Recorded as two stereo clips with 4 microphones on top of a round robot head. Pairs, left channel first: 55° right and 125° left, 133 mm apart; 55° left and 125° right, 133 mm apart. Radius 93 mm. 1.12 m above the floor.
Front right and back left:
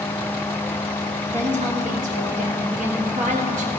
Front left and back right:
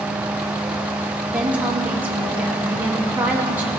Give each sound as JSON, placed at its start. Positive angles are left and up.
{"t": 1.3, "sound": "a woman speaking", "azimuth_deg": 155, "distance_m": 1.5}